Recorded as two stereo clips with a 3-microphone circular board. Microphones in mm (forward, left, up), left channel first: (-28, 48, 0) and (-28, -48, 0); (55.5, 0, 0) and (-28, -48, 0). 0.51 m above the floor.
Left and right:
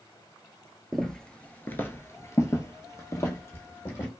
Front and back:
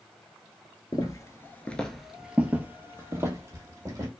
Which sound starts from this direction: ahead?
Footsteps, at 0.9 s.